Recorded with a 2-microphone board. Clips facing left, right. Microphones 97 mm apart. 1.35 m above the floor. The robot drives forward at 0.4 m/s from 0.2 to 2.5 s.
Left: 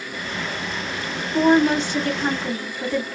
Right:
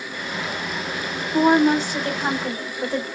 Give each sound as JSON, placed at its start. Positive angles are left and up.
{"t": 1.3, "sound": "a woman speaking", "side_deg": -15, "distance_m": 1.1}